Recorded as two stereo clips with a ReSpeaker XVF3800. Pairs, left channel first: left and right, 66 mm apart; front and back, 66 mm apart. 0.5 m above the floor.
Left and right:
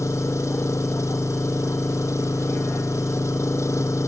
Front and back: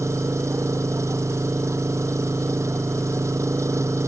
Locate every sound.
0.0 s an engine running: 135° left